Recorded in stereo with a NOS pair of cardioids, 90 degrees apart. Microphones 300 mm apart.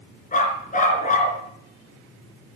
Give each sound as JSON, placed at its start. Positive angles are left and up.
{"t": 0.3, "sound": "a dog barking", "azimuth_deg": 25, "distance_m": 4.0}